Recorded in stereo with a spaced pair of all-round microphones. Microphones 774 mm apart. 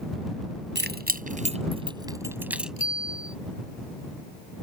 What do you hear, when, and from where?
0.8 s keys jangling: 15° right (ahead or behind); by 2.7 s centre (ahead or behind)
2.8 s a bicycle bell: 55° left (ahead or behind)